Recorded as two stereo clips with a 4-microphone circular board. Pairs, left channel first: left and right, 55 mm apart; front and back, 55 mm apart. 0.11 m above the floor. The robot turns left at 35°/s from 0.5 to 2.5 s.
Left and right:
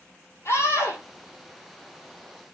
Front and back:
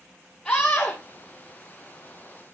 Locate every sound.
0.5 s a scream: 80° left, 2.5 m; by 1.0 s 60° left, 2.5 m